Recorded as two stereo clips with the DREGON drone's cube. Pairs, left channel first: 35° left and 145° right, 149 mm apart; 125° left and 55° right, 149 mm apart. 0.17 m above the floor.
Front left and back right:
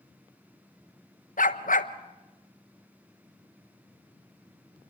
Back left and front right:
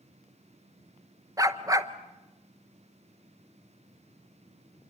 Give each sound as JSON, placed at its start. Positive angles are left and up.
{"t": 1.4, "sound": "a dog barking", "azimuth_deg": 10, "distance_m": 1.0}